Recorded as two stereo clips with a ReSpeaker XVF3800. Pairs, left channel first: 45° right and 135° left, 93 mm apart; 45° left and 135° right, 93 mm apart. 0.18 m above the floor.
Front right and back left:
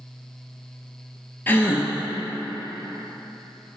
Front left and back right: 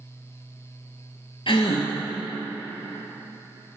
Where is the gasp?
20° left, 1.0 m.